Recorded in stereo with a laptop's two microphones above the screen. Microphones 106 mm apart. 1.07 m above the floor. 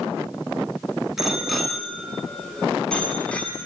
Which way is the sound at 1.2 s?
5° right (ahead or behind).